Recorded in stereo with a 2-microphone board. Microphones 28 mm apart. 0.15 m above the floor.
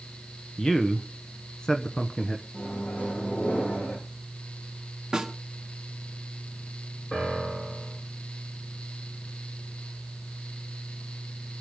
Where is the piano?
35° left (ahead or behind), 6.5 m.